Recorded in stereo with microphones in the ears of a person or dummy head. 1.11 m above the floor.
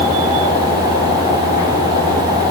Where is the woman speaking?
No woman speaking in this recording.